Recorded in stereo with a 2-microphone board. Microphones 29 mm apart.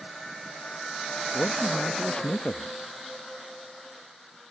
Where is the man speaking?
60° left (ahead or behind).